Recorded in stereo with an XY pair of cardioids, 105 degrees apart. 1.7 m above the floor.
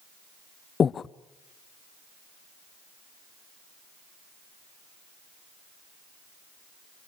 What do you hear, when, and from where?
0.8 s breathing: 45° left, 0.7 m